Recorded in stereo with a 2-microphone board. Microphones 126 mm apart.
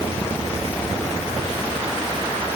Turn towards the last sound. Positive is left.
No sound to turn to.